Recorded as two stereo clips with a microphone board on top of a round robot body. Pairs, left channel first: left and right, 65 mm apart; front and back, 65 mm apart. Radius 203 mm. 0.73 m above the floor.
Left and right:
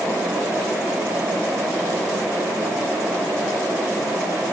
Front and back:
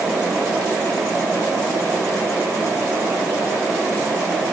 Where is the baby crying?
No baby crying in this recording.